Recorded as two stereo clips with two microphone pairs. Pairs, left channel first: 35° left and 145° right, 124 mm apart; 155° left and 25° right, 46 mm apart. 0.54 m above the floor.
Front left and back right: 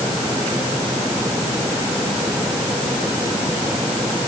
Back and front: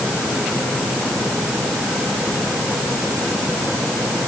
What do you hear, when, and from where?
Only background noise.